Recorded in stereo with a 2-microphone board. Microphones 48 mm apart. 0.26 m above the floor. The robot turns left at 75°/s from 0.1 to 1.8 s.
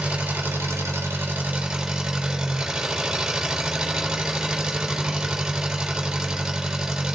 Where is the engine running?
45° right, 3 m; by 7.2 s 170° right, 3 m.